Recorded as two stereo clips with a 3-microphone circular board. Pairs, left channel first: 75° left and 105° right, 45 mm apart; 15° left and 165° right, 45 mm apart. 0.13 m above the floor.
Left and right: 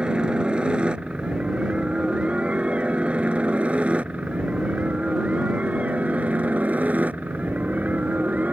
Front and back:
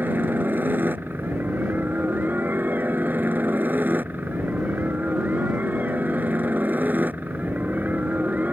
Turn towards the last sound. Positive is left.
turn(degrees=-135)